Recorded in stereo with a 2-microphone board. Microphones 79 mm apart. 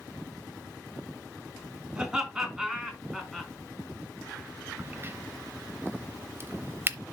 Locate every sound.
1.9 s laughter: 10° right (ahead or behind), 4.5 m; by 3.5 s centre (ahead or behind), 4.5 m
4.8 s a crack: 30° right (ahead or behind), 0.7 m